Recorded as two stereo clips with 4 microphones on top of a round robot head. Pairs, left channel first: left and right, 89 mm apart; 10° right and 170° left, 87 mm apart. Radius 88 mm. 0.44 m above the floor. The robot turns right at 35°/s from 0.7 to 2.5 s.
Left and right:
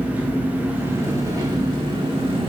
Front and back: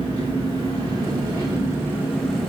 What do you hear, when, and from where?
0.0 s an engine running: 160° right, 3 m; by 2.5 s 100° right, 3 m